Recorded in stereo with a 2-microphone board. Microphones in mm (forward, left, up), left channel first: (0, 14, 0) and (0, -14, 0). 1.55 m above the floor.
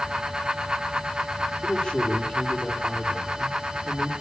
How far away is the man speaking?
About 3.5 m.